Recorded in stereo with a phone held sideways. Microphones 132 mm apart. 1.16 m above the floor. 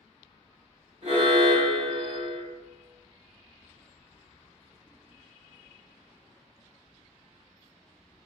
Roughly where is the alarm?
Right.